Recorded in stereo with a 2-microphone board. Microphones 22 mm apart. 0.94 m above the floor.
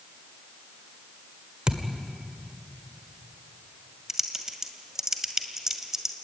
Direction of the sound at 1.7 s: 40° right (ahead or behind).